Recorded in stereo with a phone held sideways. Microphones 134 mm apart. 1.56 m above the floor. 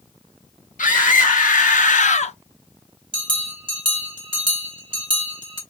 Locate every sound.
0.8 s a scream: 85° left, 2.5 m; by 2.4 s 55° left (ahead or behind), 0.8 m
3.1 s a bell: 40° right (ahead or behind), 2 m